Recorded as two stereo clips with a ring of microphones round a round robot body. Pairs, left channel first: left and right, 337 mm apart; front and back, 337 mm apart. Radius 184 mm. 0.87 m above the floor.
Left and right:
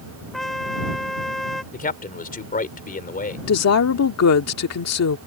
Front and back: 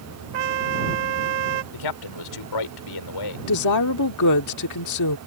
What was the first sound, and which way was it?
A trumpet, straight behind.